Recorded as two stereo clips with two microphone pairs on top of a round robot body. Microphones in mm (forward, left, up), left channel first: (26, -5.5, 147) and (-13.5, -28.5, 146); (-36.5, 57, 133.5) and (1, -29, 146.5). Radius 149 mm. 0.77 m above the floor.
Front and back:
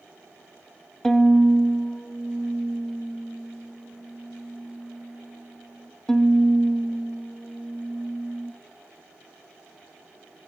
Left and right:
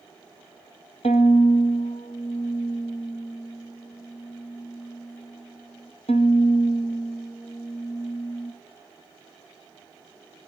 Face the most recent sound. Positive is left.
turn(degrees=105)